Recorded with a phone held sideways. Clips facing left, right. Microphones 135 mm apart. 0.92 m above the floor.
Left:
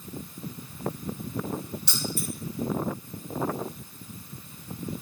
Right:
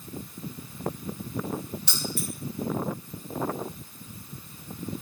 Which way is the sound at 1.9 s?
65° right (ahead or behind).